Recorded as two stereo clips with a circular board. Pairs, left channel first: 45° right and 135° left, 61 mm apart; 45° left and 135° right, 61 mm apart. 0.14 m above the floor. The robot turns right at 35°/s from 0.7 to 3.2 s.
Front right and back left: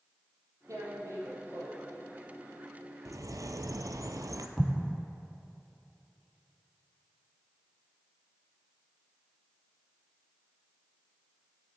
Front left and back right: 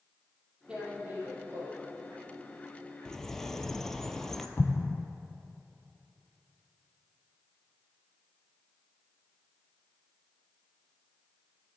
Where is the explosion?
65° left, 0.5 m.